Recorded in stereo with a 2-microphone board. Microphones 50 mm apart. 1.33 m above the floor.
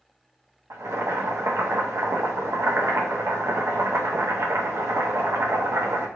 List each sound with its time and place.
0.7 s boiling: 75° right (ahead or behind), 0.6 m